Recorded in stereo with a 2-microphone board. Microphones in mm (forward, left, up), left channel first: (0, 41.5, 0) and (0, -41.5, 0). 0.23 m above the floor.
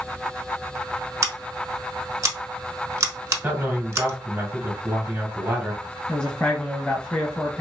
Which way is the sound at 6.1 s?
10° left (ahead or behind).